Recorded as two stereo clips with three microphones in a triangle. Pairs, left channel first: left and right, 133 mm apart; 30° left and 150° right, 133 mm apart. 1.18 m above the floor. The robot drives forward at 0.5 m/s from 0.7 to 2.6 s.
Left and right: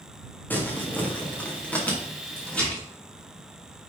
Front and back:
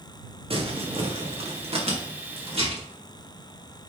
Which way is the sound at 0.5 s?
165° left.